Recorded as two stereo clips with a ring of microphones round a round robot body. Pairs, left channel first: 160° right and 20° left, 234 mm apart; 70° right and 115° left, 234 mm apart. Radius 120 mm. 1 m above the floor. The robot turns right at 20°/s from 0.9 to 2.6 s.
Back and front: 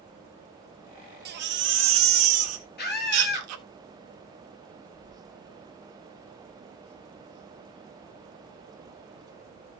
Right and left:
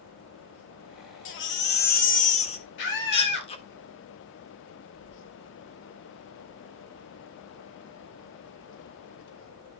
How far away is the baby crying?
About 1.8 m.